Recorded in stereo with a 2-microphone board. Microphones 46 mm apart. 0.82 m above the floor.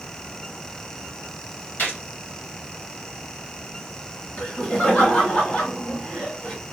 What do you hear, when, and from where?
1.8 s a gunshot: 45° left (ahead or behind), 1.9 m
4.4 s laughter: 35° left (ahead or behind), 2 m